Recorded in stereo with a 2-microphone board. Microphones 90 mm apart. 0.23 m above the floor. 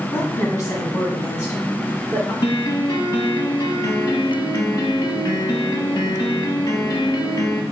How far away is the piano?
About 0.6 m.